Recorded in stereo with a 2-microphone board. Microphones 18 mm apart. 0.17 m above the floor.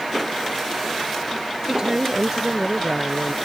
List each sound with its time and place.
1.7 s a woman speaking: 35° right (ahead or behind)